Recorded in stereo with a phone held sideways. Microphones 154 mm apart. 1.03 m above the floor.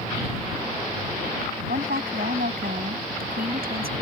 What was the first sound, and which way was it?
A woman speaking, 75° right (ahead or behind).